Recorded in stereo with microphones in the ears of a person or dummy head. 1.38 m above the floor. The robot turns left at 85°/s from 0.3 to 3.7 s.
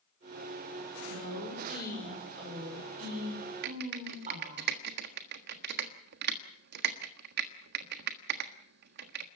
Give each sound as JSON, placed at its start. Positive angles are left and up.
{"t": 1.1, "sound": "a woman speaking", "azimuth_deg": 85, "distance_m": 5.5}
{"t": 3.6, "sound": "typing on a keyboard", "side_deg": -60, "distance_m": 1.3}